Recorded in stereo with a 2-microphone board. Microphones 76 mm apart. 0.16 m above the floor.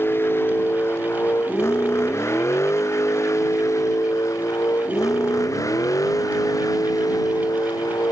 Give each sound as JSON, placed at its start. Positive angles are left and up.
{"t": 0.0, "sound": "a vehicle", "side_deg": 30}